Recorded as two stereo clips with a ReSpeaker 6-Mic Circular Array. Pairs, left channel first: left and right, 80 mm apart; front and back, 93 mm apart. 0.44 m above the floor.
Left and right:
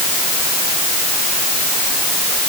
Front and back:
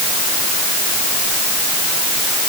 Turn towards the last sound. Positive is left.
No sound to turn to.